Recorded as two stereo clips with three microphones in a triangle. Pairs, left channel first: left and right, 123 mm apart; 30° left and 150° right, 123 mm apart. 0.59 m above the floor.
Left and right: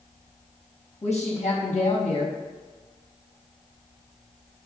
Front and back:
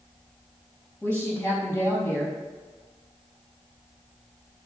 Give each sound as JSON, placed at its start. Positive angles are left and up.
{"t": 1.0, "sound": "a woman speaking", "azimuth_deg": 90, "distance_m": 4.0}